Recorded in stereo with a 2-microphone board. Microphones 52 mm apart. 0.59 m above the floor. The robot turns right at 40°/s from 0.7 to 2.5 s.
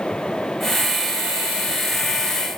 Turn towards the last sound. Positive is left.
No sound to turn to.